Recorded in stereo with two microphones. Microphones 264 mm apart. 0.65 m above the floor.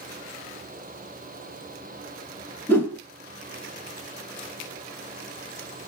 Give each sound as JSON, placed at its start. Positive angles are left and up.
{"t": 2.7, "sound": "a whoosh", "side_deg": 10, "distance_m": 1.2}